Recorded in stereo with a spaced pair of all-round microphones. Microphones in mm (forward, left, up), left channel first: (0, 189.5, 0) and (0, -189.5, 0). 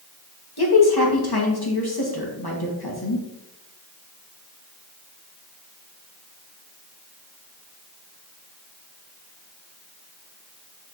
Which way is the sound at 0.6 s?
75° left (ahead or behind).